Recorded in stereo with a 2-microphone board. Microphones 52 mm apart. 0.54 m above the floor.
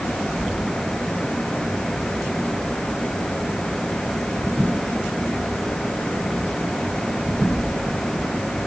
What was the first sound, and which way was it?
Only background noise.